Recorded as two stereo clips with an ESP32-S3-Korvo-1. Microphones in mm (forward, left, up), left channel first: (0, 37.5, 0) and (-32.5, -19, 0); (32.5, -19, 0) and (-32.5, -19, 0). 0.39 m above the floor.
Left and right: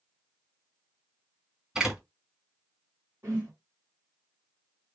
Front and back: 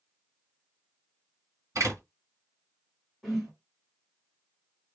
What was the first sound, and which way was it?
A door slam, 160° left.